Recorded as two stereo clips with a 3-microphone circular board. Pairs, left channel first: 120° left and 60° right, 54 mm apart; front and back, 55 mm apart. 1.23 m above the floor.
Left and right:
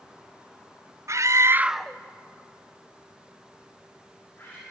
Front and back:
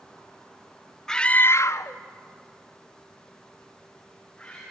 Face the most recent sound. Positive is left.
turn(degrees=70)